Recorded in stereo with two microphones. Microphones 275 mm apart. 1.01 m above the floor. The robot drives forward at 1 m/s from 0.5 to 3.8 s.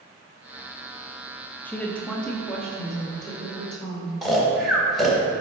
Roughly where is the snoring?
Centre.